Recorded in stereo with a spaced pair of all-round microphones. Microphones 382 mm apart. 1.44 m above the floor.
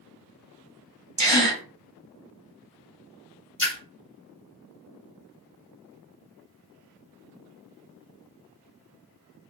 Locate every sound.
1.2 s a gasp: 50° right (ahead or behind), 1.0 m
3.6 s a splash: 40° left (ahead or behind), 1.6 m